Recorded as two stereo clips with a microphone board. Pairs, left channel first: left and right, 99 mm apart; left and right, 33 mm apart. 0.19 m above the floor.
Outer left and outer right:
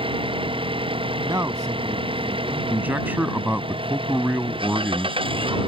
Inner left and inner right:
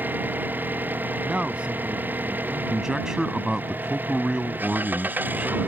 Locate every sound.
0.0 s an engine running: 60° right (ahead or behind)
1.2 s a man speaking: 35° right (ahead or behind)
2.7 s a man speaking: 20° right (ahead or behind)